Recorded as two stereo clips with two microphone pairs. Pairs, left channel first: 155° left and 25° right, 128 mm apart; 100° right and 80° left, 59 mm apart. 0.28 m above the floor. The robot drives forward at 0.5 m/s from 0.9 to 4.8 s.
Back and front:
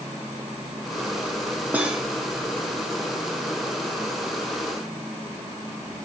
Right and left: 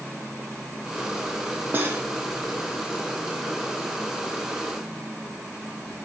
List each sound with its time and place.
1.7 s cutlery clinking: 50° left, 0.8 m; by 2.1 s 65° left, 0.8 m